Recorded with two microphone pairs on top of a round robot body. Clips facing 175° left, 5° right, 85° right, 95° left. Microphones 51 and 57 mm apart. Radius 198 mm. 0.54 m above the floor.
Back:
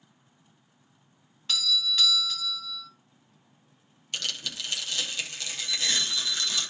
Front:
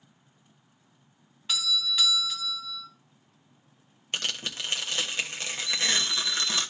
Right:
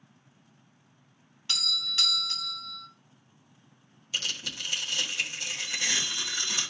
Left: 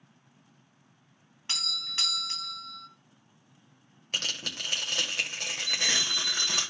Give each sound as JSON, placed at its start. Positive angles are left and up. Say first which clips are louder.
{"t": 1.5, "sound": "a doorbell", "louder": "back 1 dB, right 3 dB", "azimuth_deg": 65, "distance_m": 1.7}
{"t": 4.1, "sound": "tearing paper", "louder": "front 2 dB, left 1 dB", "azimuth_deg": 50, "distance_m": 1.4}
{"t": 5.7, "sound": "an alarm clock", "louder": "front 2 dB, left 1 dB", "azimuth_deg": 115, "distance_m": 1.3}